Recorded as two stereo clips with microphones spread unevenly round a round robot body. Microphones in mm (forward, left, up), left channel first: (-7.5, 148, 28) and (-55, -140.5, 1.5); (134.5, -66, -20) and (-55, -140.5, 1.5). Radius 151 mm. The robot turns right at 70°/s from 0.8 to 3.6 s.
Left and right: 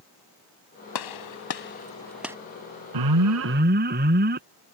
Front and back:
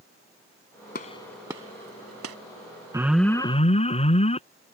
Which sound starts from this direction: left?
A gunshot, at 0.9 s.